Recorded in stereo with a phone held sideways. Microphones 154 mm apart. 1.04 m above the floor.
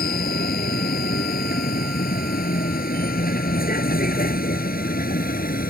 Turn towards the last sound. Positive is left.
turn(degrees=70)  # may be behind; listen again after turning